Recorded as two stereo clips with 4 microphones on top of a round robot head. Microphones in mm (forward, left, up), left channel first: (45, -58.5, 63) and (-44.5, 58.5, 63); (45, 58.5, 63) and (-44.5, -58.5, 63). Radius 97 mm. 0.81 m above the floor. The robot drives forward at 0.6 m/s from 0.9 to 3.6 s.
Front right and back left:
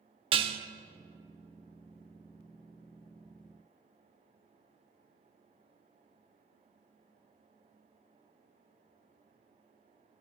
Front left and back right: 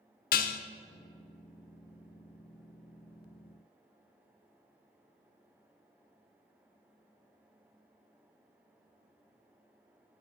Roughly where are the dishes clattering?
Left.